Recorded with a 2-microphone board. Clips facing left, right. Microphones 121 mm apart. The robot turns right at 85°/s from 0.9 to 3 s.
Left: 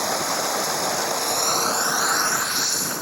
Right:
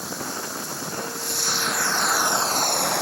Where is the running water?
80° left; by 3.0 s 100° right.